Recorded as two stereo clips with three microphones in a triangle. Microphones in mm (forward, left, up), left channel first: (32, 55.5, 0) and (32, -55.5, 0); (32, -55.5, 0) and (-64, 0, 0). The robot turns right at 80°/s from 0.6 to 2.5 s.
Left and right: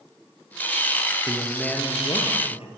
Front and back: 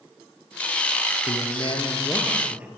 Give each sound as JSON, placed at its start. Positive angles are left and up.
{"t": 1.3, "sound": "a man speaking", "azimuth_deg": -25, "distance_m": 4.0}